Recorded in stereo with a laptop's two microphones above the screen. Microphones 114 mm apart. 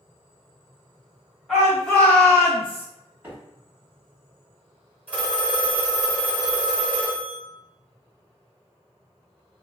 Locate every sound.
1.5 s a shout: centre (ahead or behind), 1.5 m; by 2.9 s 65° left (ahead or behind), 0.6 m
3.2 s a microwave: 20° right (ahead or behind), 1.5 m
5.1 s a phone ringing: 15° right (ahead or behind), 1.6 m